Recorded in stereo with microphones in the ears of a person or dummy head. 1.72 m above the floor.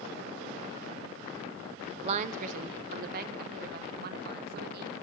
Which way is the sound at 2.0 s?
35° right (ahead or behind).